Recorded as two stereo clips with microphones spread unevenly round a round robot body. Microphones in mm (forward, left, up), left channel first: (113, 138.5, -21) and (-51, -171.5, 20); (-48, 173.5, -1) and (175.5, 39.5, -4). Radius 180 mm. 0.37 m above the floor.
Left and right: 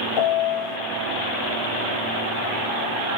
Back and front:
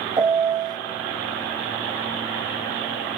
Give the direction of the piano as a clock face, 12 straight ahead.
11 o'clock.